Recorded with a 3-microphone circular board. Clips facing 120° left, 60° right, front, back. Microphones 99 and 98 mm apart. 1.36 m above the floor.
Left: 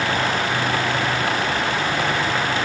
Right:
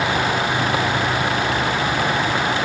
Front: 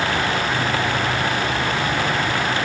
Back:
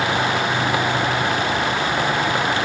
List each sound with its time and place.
Only background noise.